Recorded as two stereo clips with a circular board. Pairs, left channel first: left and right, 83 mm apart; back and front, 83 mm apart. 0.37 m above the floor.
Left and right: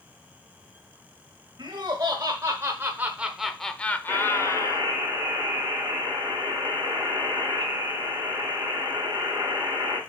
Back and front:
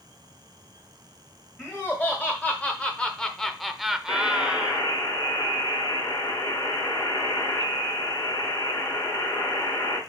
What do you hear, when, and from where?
1.6 s laughter: 115° right, 1.5 m; by 4.9 s 70° left, 1.2 m
4.1 s a buzzer: 140° right, 4 m